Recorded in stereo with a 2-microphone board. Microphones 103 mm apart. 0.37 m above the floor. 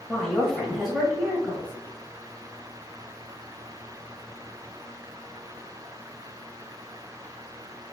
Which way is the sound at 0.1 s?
10° left (ahead or behind).